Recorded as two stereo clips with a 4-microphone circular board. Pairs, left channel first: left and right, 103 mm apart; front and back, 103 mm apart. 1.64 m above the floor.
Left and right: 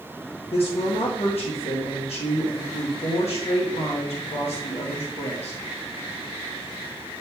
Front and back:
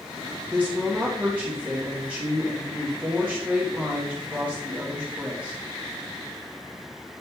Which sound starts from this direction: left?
A woman speaking, at 0.5 s.